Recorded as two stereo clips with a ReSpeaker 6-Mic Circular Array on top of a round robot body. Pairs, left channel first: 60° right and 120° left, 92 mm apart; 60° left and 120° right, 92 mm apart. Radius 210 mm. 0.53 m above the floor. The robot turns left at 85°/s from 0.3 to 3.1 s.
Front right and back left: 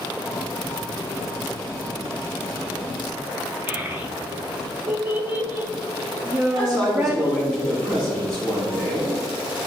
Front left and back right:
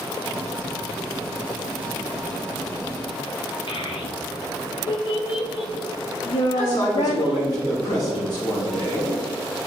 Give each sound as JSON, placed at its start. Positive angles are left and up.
{"t": 3.7, "sound": "a child speaking", "azimuth_deg": 50, "distance_m": 1.2}
{"t": 6.5, "sound": "a man speaking", "azimuth_deg": 35, "distance_m": 3.5}